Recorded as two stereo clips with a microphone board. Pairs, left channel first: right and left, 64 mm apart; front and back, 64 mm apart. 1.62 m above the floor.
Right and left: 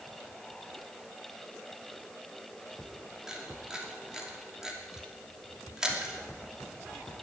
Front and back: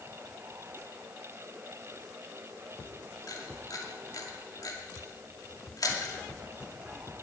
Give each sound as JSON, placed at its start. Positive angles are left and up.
{"t": 3.3, "sound": "a camera shutter", "azimuth_deg": 10, "distance_m": 2.5}